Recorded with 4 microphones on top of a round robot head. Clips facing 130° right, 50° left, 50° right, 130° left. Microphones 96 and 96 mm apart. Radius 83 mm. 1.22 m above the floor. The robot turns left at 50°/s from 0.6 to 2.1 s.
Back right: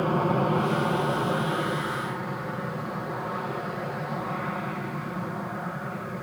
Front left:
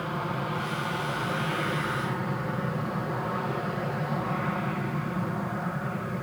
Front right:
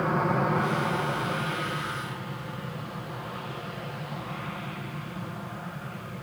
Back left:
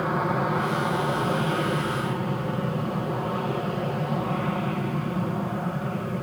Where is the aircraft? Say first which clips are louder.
Back right 7 dB, back left 1 dB; 145° right; by 6.2 s 140° left.